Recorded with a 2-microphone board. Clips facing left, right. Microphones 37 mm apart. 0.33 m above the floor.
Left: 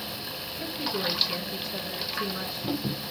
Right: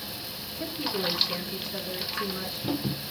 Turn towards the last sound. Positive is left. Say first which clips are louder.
# right 1 dB
turn(degrees=5)  # may be behind; listen again after turning